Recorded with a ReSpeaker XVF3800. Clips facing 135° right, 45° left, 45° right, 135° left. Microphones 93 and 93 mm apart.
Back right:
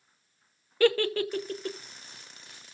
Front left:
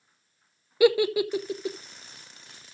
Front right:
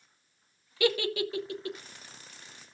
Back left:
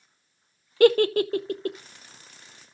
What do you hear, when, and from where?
0.8 s a giggle: 120° left, 0.6 m